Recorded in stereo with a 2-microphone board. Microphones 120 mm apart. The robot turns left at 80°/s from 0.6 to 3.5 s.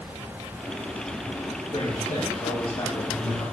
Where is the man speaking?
130° left, 7 m; by 3.4 s 10° right, 7 m.